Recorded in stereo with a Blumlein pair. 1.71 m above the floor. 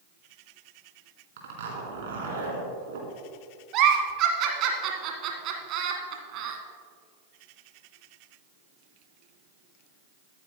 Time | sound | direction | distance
1.4 | a zipper | 55° right | 4 m
3.7 | a giggle | 35° right | 1.8 m